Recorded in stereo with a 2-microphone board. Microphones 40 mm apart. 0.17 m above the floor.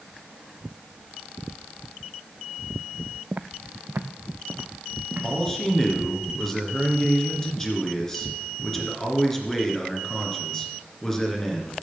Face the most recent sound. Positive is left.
turn(degrees=10)  # may be behind; listen again after turning